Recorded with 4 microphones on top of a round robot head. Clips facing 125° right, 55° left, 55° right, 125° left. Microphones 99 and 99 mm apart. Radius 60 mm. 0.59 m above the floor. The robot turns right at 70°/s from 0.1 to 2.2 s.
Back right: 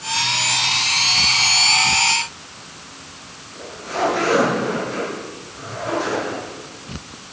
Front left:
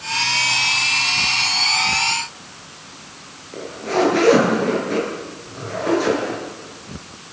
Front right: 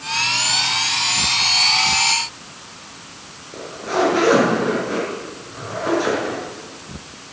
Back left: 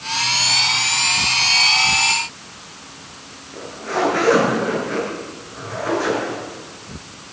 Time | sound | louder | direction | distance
3.5 | a zipper | front left 6 dB, front right 2 dB | 15° left | 9 m